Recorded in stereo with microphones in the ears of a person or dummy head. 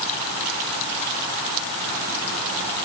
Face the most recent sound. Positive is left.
No sound to turn to.